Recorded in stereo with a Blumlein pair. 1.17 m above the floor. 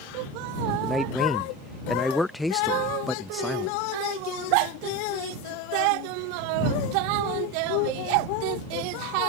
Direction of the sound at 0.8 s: 5° left.